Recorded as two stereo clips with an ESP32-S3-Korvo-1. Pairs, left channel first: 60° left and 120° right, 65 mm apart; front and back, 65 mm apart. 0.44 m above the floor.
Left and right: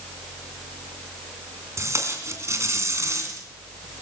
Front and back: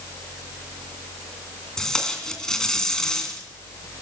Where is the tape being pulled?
80° right, 2.5 m.